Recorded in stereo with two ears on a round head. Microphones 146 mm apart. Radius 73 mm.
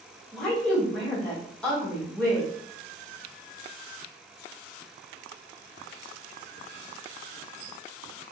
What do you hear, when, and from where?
0.3 s a woman speaking: 5° left (ahead or behind), 1.1 m